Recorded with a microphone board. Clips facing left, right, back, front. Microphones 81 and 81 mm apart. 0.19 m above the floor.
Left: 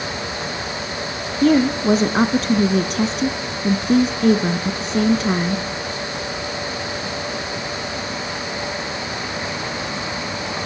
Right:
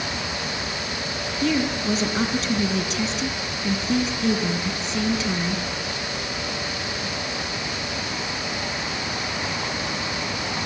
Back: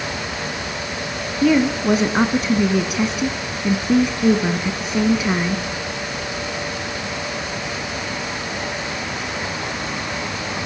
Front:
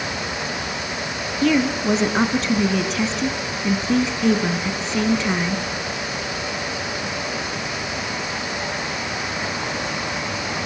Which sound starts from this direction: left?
A woman speaking, at 1.4 s.